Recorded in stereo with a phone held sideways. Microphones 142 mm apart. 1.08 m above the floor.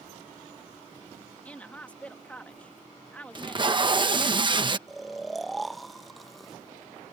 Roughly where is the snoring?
Centre.